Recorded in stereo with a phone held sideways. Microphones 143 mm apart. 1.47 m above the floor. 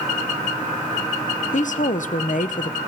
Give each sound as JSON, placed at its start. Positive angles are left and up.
{"t": 1.5, "sound": "a woman speaking", "side_deg": 60, "distance_m": 0.6}